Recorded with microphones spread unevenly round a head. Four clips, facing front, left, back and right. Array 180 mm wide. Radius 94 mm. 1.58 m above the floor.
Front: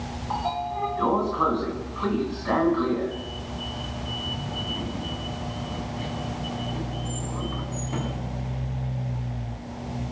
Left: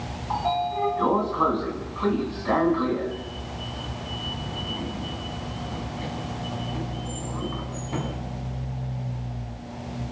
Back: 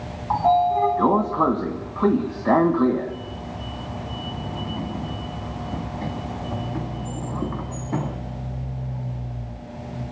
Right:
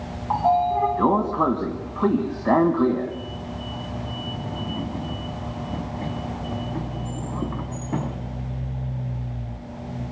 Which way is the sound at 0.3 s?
145° right.